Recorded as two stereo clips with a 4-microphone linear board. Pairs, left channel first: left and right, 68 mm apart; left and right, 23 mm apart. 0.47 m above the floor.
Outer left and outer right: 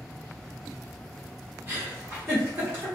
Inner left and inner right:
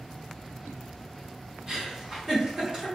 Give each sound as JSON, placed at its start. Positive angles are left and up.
{"t": 1.7, "sound": "a giggle", "side_deg": -35, "distance_m": 1.3}